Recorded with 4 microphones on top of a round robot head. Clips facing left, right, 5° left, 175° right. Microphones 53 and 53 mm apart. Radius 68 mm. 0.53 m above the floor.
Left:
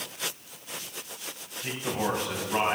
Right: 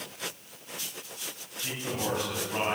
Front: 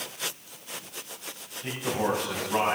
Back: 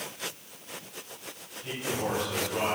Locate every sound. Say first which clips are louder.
1.6 s a man speaking: left 3 dB, front 4 dB; 25° left, 5 m